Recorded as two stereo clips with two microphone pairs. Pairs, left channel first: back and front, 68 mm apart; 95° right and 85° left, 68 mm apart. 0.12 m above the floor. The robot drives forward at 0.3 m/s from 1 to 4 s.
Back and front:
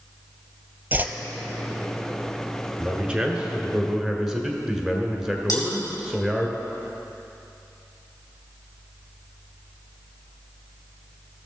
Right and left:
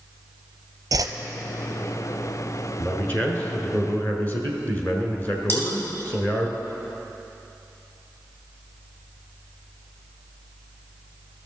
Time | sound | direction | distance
0.9 | a whoosh | 60° left | 0.6 m
2.8 | a man speaking | 60° right | 1.4 m
5.5 | cutlery clinking | 155° right | 3 m